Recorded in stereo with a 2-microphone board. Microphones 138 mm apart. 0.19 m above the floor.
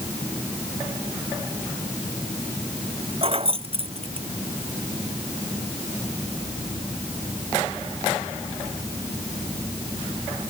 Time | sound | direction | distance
3.2 | keys jangling | 45° right (ahead or behind) | ?